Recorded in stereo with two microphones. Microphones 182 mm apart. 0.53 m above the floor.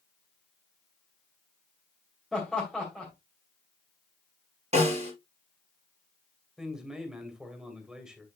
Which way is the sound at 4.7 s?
40° right (ahead or behind).